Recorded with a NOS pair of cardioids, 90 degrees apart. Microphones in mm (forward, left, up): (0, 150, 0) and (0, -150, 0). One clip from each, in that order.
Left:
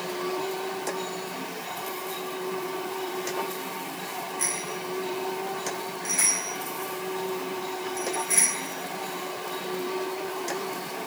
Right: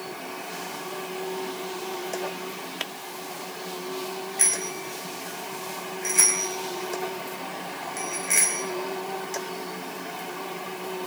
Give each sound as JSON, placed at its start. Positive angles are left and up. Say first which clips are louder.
{"t": 4.4, "sound": "a bicycle bell", "louder": "right 5 dB", "azimuth_deg": -60, "distance_m": 6.0}